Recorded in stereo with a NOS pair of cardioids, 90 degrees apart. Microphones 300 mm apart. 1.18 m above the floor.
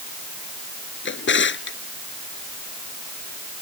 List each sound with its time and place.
1.1 s a drawer: 40° left